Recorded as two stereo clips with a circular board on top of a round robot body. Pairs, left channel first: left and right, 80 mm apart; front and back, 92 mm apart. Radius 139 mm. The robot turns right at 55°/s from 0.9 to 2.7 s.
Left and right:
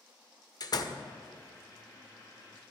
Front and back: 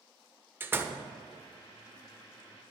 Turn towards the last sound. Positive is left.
turn(degrees=-145)